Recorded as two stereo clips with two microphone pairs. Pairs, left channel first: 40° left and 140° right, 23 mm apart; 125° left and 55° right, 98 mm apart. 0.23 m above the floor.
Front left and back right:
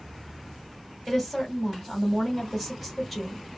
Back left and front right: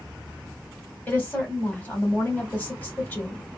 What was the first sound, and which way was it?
A woman speaking, 130° left.